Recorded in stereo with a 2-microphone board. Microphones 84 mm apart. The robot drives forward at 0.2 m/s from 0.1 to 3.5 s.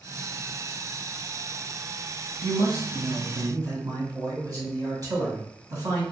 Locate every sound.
2.4 s a man speaking: 45° right (ahead or behind), 1.6 m